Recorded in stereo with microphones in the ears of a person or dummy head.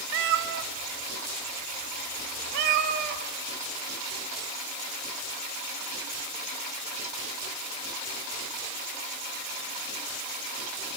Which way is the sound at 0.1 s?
60° right (ahead or behind).